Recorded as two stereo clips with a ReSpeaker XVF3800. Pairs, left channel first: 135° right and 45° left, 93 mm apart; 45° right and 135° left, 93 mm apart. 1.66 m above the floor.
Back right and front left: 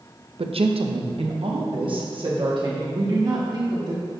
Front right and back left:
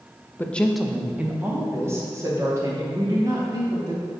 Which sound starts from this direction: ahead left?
A woman speaking, at 0.4 s.